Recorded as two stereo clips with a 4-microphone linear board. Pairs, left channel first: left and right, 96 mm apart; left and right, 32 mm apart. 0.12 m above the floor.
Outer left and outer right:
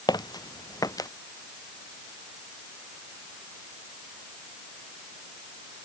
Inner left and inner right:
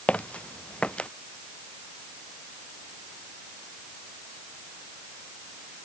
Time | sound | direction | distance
0.1 | footsteps | 45° left (ahead or behind) | ?